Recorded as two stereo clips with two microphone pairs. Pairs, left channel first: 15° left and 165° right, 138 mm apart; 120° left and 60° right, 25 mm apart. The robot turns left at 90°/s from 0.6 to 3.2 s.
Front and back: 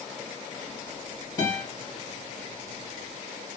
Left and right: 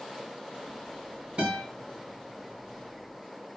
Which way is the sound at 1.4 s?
45° right.